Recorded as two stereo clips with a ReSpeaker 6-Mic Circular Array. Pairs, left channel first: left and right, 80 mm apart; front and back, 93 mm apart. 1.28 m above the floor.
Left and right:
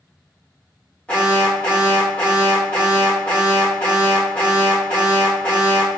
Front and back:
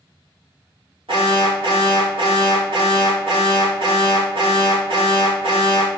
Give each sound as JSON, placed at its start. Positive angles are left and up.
{"t": 1.1, "sound": "an alarm", "azimuth_deg": 165, "distance_m": 3.5}